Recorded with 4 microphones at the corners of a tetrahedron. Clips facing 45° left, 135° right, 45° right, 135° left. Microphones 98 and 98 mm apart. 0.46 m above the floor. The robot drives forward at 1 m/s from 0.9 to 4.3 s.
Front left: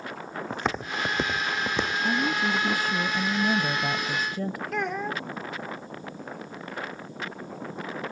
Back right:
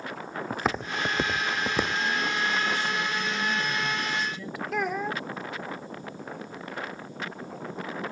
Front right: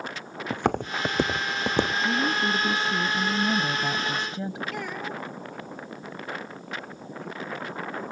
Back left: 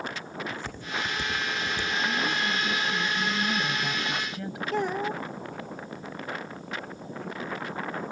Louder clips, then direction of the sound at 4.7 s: Back right 3 dB, back left 5 dB; 140° left.